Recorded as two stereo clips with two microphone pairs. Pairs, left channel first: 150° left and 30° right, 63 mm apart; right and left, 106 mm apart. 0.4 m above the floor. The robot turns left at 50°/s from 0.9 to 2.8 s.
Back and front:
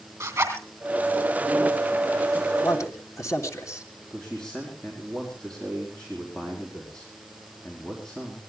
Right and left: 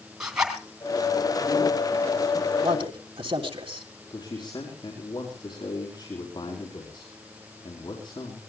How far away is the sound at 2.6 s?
About 3.5 m.